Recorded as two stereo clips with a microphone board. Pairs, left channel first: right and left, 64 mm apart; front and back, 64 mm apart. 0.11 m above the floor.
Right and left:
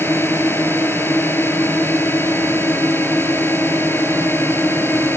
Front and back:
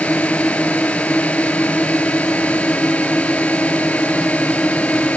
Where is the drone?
55° right.